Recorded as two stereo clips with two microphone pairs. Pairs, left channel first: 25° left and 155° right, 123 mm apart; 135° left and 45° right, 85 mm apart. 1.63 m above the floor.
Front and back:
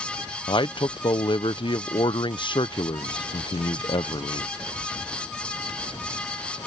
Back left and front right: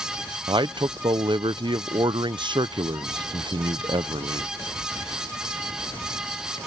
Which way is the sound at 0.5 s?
20° right.